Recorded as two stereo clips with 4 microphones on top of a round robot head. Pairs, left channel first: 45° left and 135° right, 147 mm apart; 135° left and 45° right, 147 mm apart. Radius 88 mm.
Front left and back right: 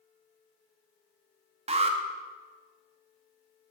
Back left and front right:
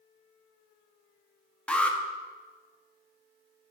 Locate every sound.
1.7 s an alarm: 145° right, 0.9 m